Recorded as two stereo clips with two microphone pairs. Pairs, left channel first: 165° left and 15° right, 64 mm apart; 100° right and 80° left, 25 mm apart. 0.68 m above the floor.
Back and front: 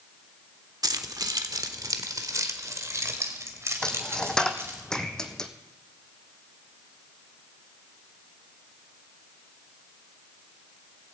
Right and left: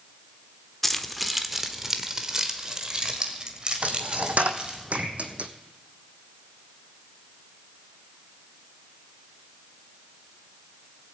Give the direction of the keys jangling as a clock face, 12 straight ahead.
1 o'clock.